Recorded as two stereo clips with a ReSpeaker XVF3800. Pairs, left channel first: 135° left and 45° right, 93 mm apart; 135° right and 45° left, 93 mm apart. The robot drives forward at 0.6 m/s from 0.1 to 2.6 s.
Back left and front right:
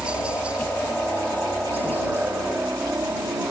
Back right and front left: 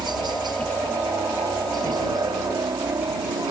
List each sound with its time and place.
0.0 s a helicopter: 30° left; by 3.5 s 10° left